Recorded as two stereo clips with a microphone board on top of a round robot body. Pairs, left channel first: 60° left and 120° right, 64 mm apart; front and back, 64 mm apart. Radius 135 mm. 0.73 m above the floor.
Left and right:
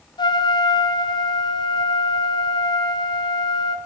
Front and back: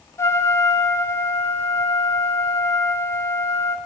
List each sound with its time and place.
0.2 s a trumpet: 55° left, 0.7 m